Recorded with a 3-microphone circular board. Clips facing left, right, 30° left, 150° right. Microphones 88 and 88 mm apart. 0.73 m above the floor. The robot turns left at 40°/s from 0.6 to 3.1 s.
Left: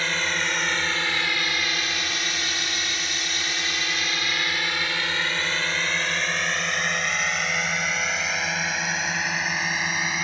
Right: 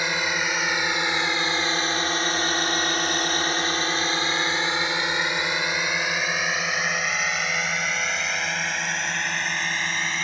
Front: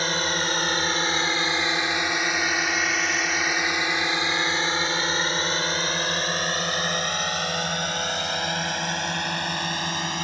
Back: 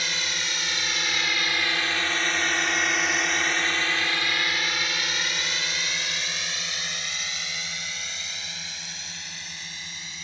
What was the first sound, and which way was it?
A drone, 15° right.